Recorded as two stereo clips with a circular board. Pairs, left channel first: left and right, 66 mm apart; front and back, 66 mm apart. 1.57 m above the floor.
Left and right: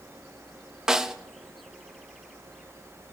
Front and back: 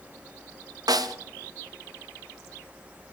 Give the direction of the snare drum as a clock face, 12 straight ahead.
6 o'clock.